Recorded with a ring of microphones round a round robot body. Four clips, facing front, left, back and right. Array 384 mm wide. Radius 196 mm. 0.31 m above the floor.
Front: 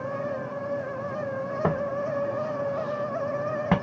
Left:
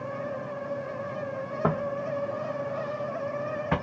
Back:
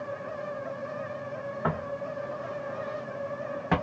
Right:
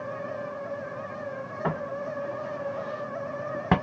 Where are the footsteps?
35° left, 1.0 m; by 3.7 s 65° right, 1.0 m.